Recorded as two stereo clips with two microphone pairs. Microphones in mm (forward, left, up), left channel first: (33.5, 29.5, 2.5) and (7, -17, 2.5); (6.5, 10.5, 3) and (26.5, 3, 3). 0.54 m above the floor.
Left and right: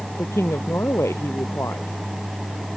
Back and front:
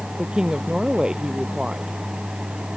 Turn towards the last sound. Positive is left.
turn(degrees=25)